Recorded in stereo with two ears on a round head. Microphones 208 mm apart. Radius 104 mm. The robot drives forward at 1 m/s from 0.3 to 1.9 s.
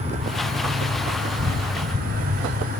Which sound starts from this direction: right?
An insect, at 0.0 s.